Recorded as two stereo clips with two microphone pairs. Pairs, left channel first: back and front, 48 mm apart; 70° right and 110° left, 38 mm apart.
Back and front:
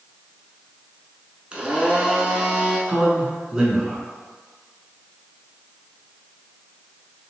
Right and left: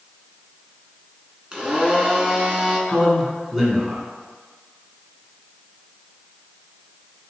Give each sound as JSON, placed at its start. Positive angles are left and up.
{"t": 1.5, "sound": "a blender", "azimuth_deg": 55, "distance_m": 1.0}
{"t": 2.9, "sound": "a man speaking", "azimuth_deg": 40, "distance_m": 1.2}